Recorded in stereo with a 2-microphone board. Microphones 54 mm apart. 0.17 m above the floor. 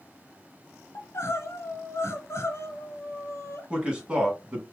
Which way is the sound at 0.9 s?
55° left (ahead or behind).